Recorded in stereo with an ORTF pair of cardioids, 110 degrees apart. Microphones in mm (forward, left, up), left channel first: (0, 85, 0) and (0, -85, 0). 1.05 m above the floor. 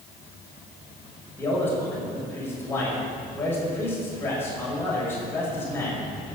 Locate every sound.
1.4 s a man speaking: 15° left, 6 m